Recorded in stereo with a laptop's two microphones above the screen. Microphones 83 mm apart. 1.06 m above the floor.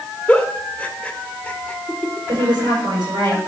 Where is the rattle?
No rattle in this recording.